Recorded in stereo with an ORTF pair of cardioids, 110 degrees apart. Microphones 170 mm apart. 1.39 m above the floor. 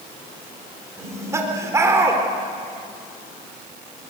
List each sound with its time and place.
1.0 s laughter: 20° right, 4.5 m